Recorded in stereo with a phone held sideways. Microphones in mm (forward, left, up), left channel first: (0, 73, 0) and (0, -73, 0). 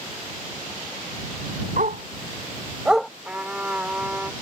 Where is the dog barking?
70° right (ahead or behind); by 3.1 s 10° left (ahead or behind).